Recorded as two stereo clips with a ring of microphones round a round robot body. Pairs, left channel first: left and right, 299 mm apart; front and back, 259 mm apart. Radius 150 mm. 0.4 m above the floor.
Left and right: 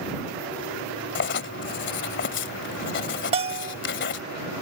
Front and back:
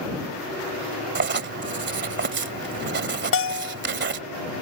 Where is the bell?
25° right.